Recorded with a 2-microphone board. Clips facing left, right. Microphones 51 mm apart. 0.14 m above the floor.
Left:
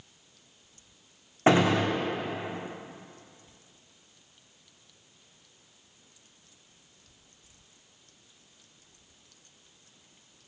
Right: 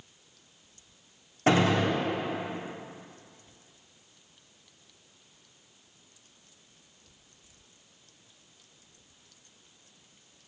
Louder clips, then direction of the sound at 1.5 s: Left 1 dB; 25° left (ahead or behind).